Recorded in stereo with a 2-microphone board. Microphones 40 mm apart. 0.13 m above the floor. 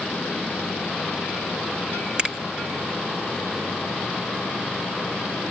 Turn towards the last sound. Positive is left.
turn(degrees=-20)  # may be behind; listen again after turning